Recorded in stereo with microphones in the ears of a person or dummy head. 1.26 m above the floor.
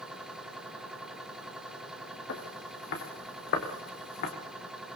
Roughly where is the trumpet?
I don't hear a trumpet.